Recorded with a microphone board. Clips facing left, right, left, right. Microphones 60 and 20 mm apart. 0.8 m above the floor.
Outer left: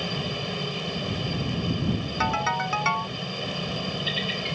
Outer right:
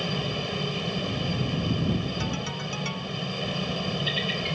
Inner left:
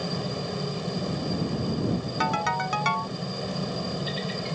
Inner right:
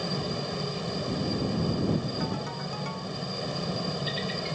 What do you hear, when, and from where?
0.0 s a helicopter: centre (ahead or behind)
2.2 s a ringtone: 55° left (ahead or behind)